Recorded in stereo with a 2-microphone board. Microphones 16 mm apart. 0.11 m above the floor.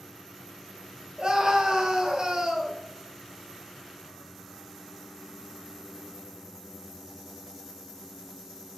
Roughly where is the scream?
Right.